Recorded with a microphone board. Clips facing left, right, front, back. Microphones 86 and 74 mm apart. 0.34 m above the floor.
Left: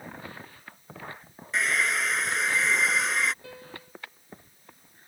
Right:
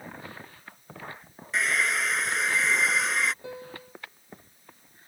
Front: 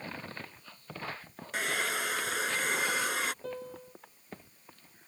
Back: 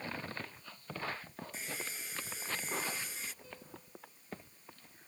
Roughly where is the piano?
Ahead.